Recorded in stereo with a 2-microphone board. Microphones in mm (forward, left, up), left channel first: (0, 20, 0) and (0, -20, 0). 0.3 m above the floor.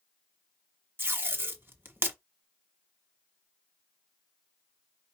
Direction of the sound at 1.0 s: 70° right (ahead or behind).